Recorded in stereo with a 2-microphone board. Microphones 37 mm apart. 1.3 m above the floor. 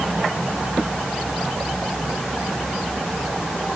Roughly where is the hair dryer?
No hair dryer in this recording.